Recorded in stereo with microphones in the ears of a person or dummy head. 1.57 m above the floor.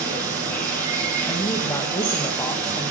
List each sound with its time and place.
0.0 s running water: 20° right (ahead or behind), 6.5 m
1.3 s a woman speaking: 20° left (ahead or behind), 2.5 m